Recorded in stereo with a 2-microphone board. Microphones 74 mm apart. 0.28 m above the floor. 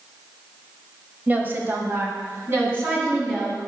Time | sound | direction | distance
1.3 | a woman speaking | 25° right (ahead or behind) | 1.1 m